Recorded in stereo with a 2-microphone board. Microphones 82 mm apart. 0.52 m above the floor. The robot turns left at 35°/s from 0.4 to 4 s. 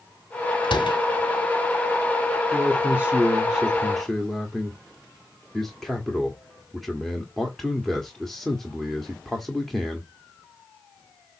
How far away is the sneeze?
I don't hear a sneeze.